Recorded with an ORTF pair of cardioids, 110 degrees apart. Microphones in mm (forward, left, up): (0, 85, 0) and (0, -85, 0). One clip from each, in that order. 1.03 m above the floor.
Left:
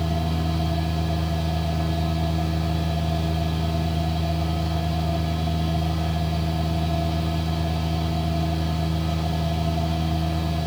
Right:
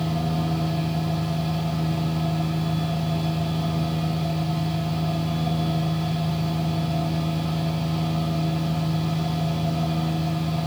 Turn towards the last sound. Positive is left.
turn(degrees=30)